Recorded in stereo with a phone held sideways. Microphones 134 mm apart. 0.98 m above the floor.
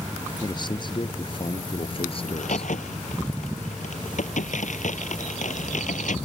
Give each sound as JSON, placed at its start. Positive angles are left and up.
{"t": 0.4, "sound": "a man speaking", "side_deg": 35}
{"t": 2.3, "sound": "a crack", "side_deg": 65}